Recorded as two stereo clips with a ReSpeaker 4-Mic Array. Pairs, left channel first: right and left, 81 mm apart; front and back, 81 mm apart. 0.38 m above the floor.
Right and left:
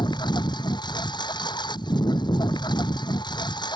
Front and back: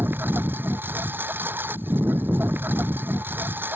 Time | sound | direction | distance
0.0 | a lawn mower | 115° right | ?